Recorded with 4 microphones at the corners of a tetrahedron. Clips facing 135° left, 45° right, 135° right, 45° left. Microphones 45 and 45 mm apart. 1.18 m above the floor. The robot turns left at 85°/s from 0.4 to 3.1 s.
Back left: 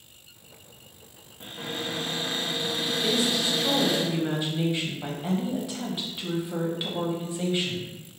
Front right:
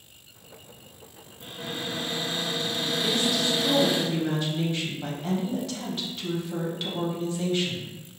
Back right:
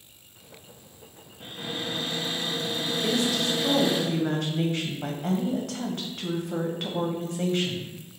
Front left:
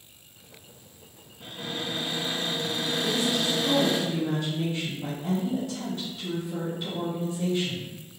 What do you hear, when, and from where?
1.4 s a cupboard door: straight behind, 0.7 m; by 4.0 s 35° left, 0.7 m
3.0 s a woman speaking: 145° right, 0.6 m; by 7.9 s 150° right, 0.6 m